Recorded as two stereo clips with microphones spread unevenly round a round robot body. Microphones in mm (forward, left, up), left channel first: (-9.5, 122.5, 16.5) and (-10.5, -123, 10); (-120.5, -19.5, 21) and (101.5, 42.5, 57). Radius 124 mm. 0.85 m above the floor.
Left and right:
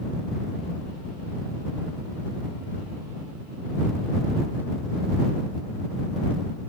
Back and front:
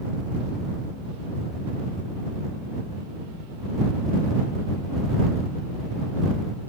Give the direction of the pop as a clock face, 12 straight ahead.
I don't hear a pop.